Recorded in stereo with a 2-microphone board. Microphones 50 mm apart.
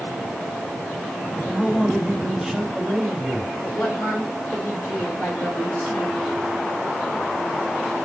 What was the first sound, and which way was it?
A man speaking, 5° left (ahead or behind).